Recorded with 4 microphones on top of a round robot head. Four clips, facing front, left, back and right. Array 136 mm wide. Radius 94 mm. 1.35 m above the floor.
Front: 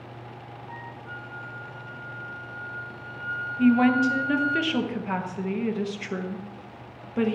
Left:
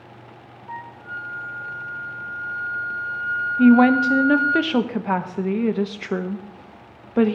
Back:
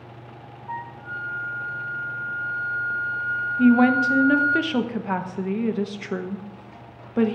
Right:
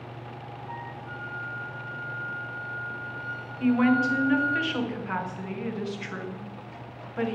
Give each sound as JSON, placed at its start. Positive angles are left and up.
{"t": 0.7, "sound": "a flute", "azimuth_deg": 160, "distance_m": 1.0}
{"t": 3.6, "sound": "a woman speaking", "azimuth_deg": 105, "distance_m": 1.1}